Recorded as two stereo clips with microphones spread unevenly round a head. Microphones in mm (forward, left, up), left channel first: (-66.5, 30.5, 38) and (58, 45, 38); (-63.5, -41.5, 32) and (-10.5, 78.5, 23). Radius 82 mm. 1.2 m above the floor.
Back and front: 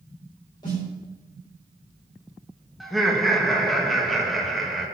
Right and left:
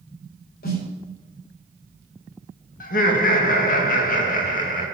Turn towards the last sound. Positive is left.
turn(degrees=-85)